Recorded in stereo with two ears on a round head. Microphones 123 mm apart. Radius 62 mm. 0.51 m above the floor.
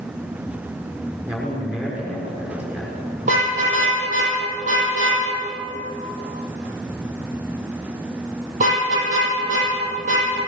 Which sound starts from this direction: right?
A car horn, at 3.2 s.